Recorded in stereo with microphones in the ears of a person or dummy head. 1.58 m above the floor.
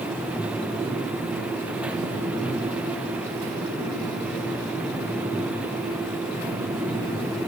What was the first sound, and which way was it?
Only background noise.